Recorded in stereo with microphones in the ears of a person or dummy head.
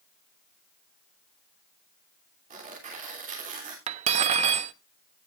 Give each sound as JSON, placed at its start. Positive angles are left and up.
{"t": 2.5, "sound": "tearing paper", "side_deg": -35, "distance_m": 3.0}
{"t": 3.9, "sound": "cutlery clinking", "side_deg": -35, "distance_m": 0.8}